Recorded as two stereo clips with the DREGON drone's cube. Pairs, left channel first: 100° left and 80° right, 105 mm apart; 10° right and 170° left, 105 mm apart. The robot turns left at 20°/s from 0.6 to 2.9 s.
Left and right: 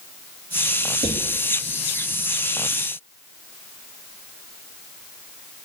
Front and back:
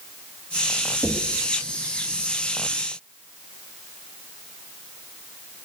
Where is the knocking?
80° right, 2 m; by 1.4 s 90° right, 2 m.